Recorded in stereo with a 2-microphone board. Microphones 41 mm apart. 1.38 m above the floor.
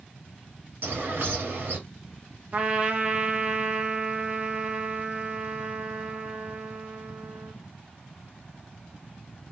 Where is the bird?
55° right (ahead or behind), 1.4 m.